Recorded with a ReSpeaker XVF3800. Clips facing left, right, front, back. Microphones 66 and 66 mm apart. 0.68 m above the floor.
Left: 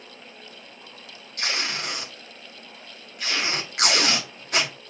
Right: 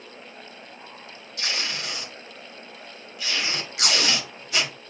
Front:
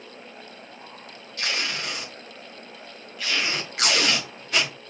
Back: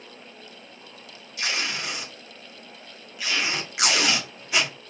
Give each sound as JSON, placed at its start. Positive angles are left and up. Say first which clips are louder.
{"t": 1.4, "sound": "tape being pulled", "louder": "left 2 dB, even", "azimuth_deg": 100, "distance_m": 1.7}